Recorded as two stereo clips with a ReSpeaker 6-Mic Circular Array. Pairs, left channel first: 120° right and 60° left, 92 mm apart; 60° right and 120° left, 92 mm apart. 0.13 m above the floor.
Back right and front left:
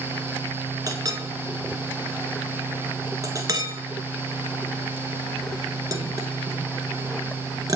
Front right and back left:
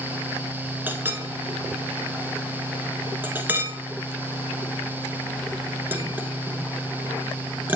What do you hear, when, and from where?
0.9 s a clink: 65° left, 1.0 m